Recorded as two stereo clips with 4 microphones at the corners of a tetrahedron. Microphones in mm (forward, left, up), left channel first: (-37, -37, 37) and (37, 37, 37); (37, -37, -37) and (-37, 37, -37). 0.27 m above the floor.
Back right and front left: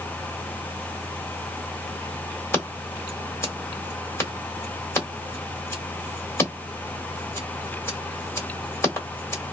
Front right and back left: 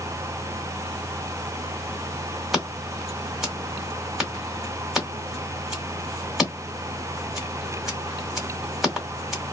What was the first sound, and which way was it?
Scissors, 140° right.